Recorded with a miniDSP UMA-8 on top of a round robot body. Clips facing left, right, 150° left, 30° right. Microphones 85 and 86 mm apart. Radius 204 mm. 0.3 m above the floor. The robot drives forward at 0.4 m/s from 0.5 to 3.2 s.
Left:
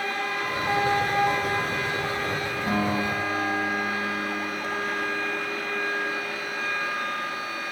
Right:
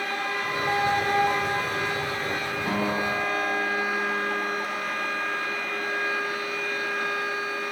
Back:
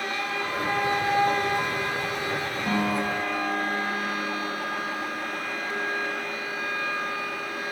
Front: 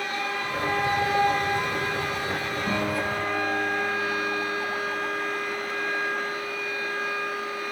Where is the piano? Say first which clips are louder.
Left 1 dB, back 2 dB; straight behind, 4.5 m.